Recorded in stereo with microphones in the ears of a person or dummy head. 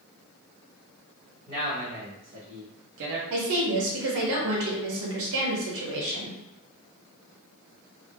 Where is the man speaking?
40° right (ahead or behind), 1.2 m; by 3.2 s 55° right (ahead or behind), 0.5 m.